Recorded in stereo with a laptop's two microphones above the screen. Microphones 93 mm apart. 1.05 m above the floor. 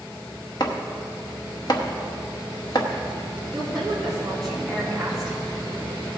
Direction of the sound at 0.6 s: 45° left (ahead or behind).